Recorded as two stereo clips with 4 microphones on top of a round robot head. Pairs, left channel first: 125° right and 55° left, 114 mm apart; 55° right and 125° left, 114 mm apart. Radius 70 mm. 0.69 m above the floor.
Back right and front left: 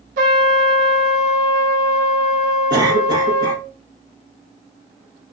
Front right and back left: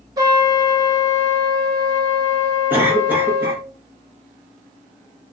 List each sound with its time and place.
0.2 s a trumpet: 65° left, 0.8 m
2.7 s a cough: 65° left, 1.0 m